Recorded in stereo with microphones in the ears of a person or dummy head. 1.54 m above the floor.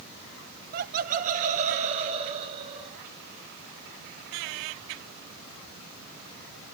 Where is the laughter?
50° right (ahead or behind), 0.8 m; by 3.0 s 25° right (ahead or behind), 2.0 m.